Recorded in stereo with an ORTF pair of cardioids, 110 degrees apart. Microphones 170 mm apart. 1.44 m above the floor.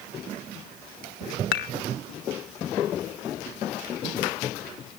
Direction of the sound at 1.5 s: 70° left.